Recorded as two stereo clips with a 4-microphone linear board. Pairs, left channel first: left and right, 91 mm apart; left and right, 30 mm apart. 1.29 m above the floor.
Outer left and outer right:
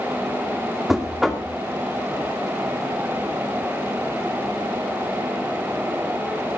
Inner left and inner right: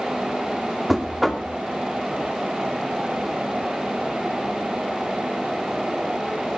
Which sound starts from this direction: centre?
Knocking, at 0.9 s.